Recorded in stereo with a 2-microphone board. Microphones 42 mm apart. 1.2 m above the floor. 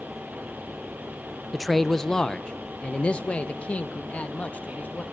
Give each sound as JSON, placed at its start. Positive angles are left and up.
{"t": 1.5, "sound": "a man speaking", "side_deg": -5, "distance_m": 0.7}